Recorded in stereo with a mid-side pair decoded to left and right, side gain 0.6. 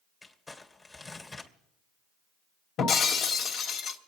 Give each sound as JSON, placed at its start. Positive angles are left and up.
{"t": 0.2, "sound": "crumpling", "azimuth_deg": 20, "distance_m": 2.5}
{"t": 2.8, "sound": "breaking glass", "azimuth_deg": 55, "distance_m": 2.5}